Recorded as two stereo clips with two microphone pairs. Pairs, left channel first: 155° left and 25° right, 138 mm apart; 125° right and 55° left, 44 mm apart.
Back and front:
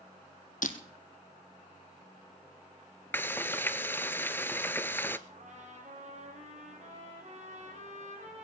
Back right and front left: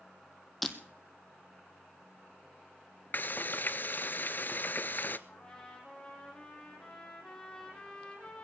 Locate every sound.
0.6 s breaking glass: 150° left, 1.2 m
3.1 s frying: 130° right, 0.5 m
5.3 s a trumpet: 50° right, 4 m